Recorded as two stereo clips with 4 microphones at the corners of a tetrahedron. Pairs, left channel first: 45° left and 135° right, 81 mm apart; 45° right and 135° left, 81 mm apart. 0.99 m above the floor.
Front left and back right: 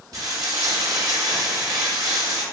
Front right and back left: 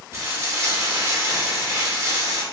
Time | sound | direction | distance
0.1 | frying | 175° right | 1.1 m